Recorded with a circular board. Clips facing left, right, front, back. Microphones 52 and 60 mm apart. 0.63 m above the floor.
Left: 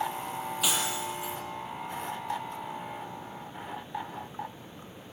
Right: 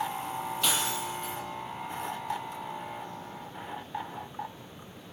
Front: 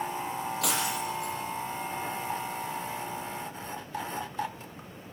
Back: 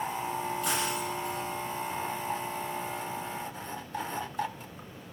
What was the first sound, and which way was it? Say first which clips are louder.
Breaking glass: even, even; 5° left.